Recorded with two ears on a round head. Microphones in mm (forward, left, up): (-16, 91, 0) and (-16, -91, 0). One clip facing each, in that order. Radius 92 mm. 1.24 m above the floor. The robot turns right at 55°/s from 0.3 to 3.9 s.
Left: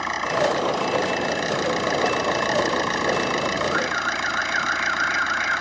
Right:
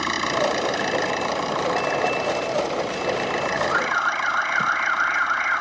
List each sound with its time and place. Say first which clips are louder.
0.0 s an engine running: left 1 dB; 45° right; by 5.6 s 155° left
3.7 s an alarm: left 1 dB; 55° right (ahead or behind); by 5.6 s 65° right (ahead or behind)